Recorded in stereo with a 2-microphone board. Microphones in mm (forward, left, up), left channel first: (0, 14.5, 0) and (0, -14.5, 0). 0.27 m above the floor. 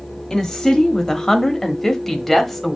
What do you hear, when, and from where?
0.3 s a woman speaking: 20° left (ahead or behind), 1.3 m; by 2.8 s 5° left (ahead or behind), 1.3 m